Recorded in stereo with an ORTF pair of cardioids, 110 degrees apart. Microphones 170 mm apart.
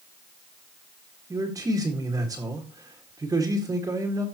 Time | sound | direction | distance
1.3 | a man speaking | 20° right | 1.8 m